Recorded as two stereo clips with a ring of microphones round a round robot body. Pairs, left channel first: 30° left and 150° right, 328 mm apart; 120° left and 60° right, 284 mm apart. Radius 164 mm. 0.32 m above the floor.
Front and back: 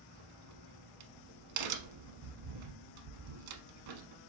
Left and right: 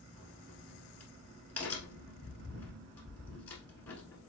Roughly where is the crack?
Behind right.